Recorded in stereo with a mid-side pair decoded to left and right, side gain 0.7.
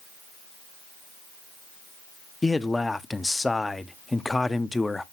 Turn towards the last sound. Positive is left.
turn(degrees=10)